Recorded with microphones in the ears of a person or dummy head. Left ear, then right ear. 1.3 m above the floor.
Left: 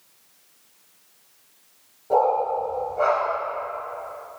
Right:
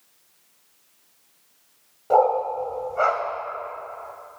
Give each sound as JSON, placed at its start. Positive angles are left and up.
{"t": 2.1, "sound": "a dog barking", "side_deg": -55, "distance_m": 1.9}